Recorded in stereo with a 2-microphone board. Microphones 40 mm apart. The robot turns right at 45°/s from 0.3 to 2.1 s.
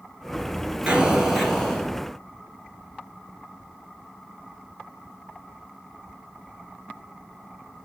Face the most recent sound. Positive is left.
turn(degrees=30)